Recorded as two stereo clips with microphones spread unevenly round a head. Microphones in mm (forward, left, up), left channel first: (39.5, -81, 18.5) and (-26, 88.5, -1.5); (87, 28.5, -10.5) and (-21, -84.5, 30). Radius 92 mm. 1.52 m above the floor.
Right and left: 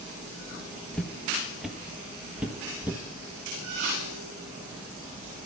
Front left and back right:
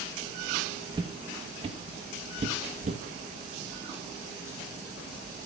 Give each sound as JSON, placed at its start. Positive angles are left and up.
{"t": 0.9, "sound": "footsteps", "azimuth_deg": -145, "distance_m": 1.8}